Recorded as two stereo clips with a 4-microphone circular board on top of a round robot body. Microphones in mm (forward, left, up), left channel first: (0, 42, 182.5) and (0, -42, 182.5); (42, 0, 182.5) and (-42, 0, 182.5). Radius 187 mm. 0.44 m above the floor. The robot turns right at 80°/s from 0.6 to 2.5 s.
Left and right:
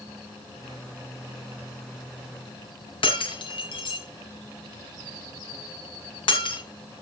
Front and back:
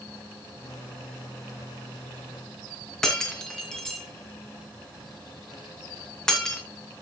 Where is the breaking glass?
85° left, 3 m.